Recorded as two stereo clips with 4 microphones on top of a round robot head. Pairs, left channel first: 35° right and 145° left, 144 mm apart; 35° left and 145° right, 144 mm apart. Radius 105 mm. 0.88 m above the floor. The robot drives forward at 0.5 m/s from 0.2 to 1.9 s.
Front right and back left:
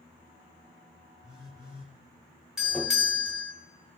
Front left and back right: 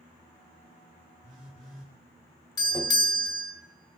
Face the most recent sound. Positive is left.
turn(degrees=60)